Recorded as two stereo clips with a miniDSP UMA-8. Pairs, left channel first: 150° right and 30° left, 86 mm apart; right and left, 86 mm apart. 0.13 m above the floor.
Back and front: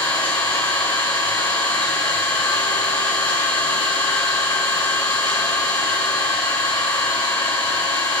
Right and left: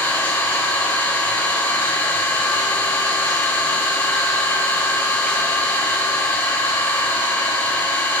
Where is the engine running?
155° right, 4 m.